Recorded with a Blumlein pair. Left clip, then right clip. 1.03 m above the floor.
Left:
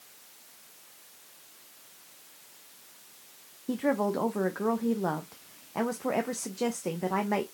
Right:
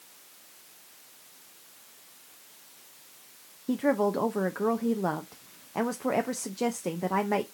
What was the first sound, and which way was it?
A woman speaking, 5° right.